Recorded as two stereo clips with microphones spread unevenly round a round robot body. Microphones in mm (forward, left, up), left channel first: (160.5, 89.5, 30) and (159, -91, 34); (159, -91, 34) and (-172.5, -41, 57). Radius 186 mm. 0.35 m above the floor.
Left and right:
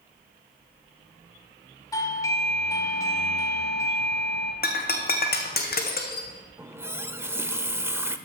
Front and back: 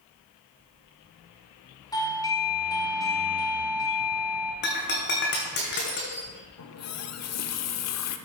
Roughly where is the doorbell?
Ahead left.